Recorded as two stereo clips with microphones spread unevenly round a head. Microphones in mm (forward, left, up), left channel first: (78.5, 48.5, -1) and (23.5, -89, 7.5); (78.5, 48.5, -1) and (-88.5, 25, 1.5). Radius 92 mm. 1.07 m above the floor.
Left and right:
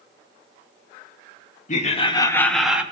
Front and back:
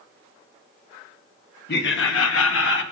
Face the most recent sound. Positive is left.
turn(degrees=-30)